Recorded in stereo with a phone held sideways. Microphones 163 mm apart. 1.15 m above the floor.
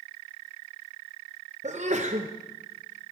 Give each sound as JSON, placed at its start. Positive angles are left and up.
{"t": 1.6, "sound": "a sneeze", "side_deg": -45, "distance_m": 0.6}